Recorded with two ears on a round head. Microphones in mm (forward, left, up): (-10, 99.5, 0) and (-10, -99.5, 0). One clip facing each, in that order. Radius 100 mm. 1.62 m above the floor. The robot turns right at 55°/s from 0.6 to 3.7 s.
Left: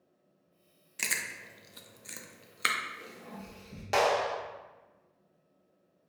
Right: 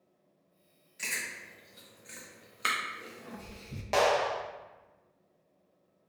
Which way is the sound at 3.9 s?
10° left (ahead or behind).